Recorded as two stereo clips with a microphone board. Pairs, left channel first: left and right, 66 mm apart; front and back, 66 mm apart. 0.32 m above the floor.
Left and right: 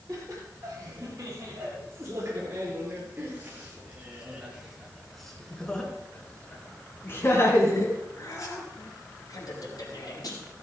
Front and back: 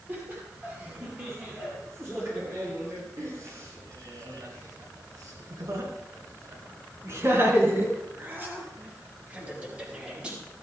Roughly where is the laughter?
Behind right.